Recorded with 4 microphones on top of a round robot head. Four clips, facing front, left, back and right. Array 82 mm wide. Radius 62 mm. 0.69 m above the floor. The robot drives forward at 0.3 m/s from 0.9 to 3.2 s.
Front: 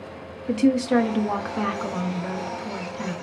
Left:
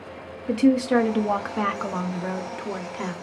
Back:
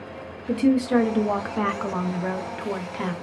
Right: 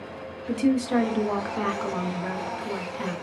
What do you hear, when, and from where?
0.5 s a woman speaking: 50° left, 0.5 m; by 3.1 s 160° left, 0.7 m